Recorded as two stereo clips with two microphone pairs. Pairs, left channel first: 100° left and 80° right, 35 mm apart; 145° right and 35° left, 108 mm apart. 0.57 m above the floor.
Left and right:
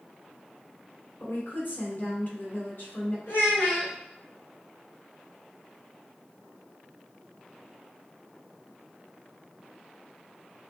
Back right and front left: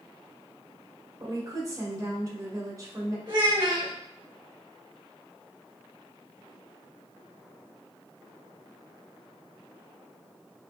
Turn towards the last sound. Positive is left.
turn(degrees=75)